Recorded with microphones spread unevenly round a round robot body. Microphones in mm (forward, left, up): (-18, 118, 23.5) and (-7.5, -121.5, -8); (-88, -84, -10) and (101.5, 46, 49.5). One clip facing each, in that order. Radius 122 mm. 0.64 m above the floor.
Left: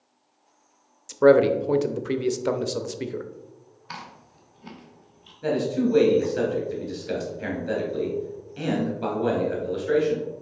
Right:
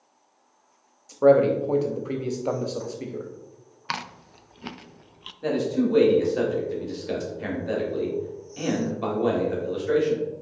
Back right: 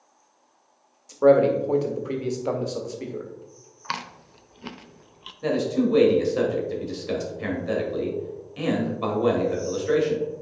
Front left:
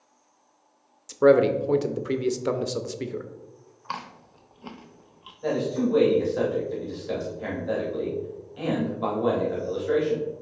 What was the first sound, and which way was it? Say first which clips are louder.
A man speaking: left 1 dB, even; 90° left.